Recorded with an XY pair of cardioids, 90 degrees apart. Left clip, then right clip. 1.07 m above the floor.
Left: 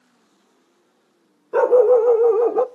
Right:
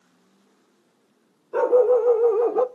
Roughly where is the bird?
I don't hear a bird.